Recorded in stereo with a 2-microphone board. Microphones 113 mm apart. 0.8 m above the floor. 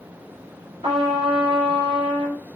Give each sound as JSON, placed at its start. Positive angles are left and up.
{"t": 0.8, "sound": "a trumpet", "side_deg": -60, "distance_m": 2.5}